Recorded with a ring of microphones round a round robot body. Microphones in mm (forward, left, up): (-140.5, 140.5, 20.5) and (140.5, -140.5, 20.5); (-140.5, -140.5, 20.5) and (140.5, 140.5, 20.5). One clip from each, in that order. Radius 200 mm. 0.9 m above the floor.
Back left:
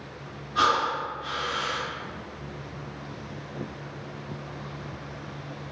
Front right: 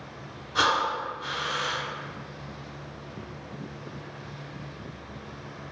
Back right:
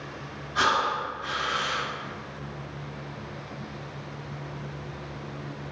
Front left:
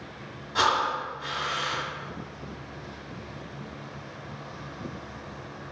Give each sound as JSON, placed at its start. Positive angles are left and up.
{"t": 0.6, "sound": "breathing", "azimuth_deg": 10, "distance_m": 1.0}